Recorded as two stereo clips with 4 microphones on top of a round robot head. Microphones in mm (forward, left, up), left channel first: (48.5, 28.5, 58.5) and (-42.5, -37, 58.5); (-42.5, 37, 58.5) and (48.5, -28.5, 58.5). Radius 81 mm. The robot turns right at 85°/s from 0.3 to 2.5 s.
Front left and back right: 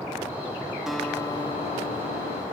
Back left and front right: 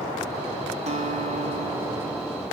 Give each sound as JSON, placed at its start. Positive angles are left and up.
{"t": 0.9, "sound": "a guitar", "azimuth_deg": -60, "distance_m": 1.1}